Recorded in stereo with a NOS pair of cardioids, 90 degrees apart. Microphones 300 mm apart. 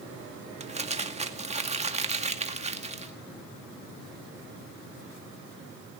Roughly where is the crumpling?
Ahead.